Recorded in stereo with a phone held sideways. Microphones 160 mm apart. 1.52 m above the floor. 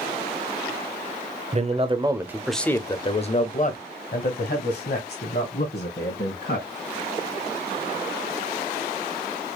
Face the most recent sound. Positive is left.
turn(degrees=80)